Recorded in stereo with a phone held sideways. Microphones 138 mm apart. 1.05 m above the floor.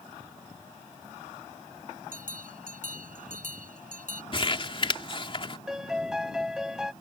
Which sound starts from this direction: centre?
A piano, at 5.7 s.